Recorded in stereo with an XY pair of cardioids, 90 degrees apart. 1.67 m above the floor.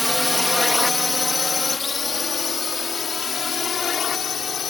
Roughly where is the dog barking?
I don't hear a dog barking.